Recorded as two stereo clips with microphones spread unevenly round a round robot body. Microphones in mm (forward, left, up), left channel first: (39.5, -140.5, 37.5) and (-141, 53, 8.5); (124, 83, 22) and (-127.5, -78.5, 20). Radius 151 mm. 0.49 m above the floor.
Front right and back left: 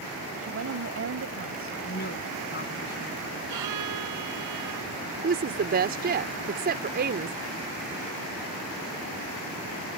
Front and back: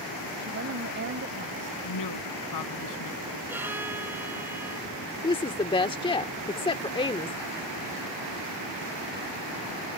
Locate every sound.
0.4 s a woman speaking: 160° left
1.9 s a woman speaking: 10° left
3.5 s a violin: 130° left
5.2 s a woman speaking: 100° left